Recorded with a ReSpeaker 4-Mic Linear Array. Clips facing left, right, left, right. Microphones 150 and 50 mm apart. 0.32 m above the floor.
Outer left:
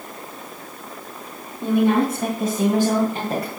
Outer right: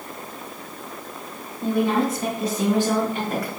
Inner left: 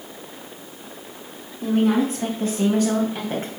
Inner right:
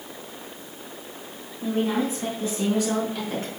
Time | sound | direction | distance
1.6 | a woman speaking | 60° left (ahead or behind) | 3 m